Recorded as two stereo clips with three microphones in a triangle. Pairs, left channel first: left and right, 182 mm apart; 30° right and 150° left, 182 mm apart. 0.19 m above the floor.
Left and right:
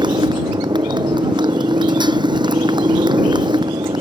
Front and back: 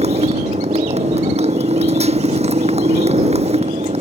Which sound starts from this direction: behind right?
A motorcycle, at 0.0 s.